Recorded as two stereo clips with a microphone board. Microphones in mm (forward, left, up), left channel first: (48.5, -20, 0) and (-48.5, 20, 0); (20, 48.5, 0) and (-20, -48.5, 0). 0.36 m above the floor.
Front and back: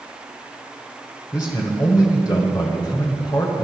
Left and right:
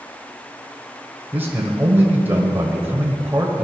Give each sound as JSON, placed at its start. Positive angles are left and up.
{"t": 1.3, "sound": "a man speaking", "azimuth_deg": -50, "distance_m": 1.5}